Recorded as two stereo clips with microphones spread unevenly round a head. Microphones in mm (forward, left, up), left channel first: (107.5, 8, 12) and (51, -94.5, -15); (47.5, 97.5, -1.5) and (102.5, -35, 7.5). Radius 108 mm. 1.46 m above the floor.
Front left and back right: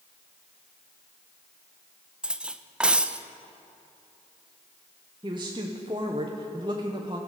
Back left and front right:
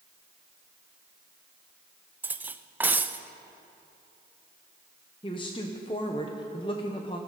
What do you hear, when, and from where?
2.2 s cutlery clinking: 15° right, 0.5 m
5.2 s a woman speaking: straight behind, 1.0 m